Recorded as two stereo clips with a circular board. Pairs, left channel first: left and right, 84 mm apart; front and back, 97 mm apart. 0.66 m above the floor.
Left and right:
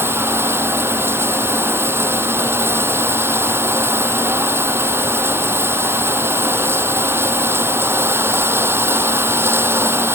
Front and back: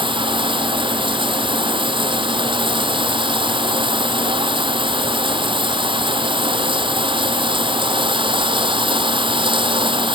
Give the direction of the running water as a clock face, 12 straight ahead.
5 o'clock.